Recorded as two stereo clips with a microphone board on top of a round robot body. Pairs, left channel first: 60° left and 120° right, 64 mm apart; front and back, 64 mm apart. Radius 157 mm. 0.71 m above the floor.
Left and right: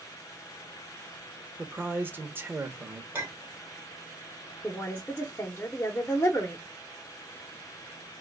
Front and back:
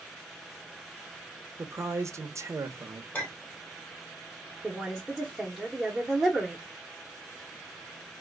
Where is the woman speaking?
100° left, 1.2 m.